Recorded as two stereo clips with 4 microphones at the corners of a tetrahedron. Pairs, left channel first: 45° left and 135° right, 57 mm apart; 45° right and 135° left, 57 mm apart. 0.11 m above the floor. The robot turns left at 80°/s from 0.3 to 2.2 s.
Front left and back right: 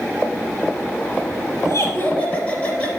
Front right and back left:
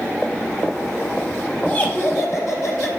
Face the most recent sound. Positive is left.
turn(degrees=-15)